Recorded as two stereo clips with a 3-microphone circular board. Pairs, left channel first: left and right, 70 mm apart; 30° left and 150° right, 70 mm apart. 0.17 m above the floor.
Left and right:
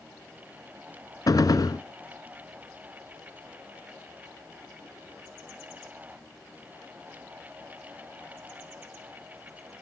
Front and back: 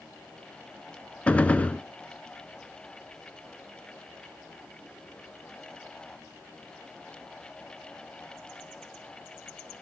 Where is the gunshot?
95° left, 0.7 m.